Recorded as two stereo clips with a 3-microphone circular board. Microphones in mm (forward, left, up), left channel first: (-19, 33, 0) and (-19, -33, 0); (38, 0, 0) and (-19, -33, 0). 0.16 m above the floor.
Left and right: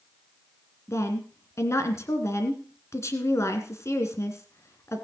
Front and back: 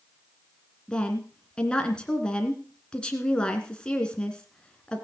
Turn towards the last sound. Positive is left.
turn(degrees=100)